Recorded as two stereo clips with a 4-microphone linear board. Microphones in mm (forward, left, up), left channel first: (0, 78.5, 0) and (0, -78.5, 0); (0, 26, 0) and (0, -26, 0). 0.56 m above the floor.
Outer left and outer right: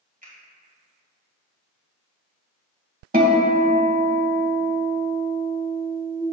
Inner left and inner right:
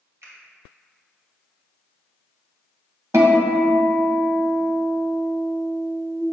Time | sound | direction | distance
0.2 | a finger snap | 65° right (ahead or behind) | 2.5 m
3.1 | a guitar | 80° right | 1.0 m